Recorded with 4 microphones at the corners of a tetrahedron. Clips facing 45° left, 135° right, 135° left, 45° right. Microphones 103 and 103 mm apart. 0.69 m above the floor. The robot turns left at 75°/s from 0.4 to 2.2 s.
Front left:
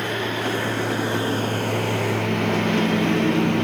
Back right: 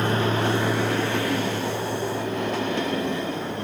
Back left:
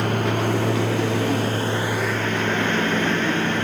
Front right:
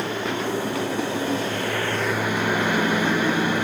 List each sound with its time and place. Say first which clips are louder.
0.0 s a lawn mower: back right 2 dB, back left 4 dB; 170° left; by 3.6 s 35° left